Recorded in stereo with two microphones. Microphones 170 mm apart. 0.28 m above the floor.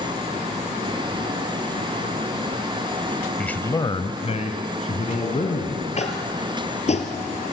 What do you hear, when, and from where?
3.4 s a man speaking: 5° left (ahead or behind), 1.2 m; by 5.9 s 40° left (ahead or behind), 3.5 m
6.0 s tapping: 40° left (ahead or behind), 2.5 m